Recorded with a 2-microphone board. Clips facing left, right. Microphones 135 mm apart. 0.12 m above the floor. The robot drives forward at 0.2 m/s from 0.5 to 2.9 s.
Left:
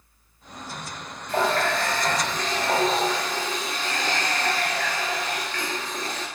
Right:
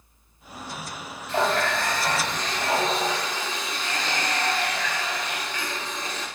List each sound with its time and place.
1.3 s a running tap: 50° left (ahead or behind), 1.2 m